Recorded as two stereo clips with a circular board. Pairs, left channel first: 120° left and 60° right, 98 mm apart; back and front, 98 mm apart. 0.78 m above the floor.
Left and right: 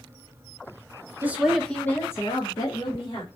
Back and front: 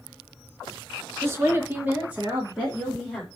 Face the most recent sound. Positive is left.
turn(degrees=85)